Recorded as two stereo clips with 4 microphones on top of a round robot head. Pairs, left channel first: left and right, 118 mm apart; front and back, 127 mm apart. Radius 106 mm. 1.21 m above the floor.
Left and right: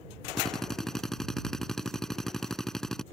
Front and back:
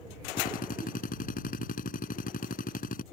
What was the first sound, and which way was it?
A drill, 5° left.